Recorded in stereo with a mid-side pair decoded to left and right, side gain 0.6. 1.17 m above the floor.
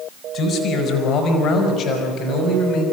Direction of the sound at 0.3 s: 60° left.